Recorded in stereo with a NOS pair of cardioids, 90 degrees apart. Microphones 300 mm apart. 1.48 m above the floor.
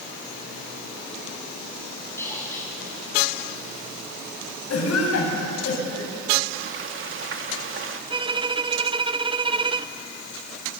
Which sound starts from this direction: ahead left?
A cough, at 4.7 s.